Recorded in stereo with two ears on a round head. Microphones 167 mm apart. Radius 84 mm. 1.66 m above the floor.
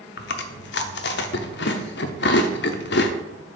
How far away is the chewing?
About 0.7 m.